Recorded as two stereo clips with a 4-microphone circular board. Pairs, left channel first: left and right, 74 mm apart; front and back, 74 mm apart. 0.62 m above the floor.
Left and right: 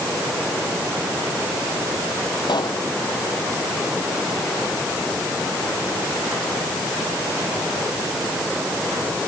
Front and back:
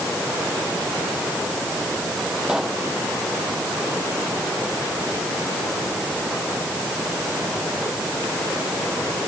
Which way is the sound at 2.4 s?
100° left.